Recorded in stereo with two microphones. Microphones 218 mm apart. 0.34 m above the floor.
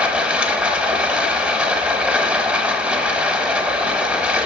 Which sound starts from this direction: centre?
Running water, at 0.0 s.